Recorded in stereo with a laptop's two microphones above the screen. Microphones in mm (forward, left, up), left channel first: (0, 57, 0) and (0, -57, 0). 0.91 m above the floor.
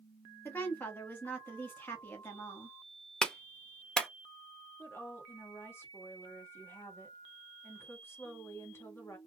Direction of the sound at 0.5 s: 20° left (ahead or behind).